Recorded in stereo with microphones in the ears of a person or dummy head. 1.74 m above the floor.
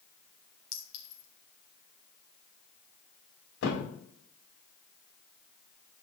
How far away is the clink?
About 2.5 m.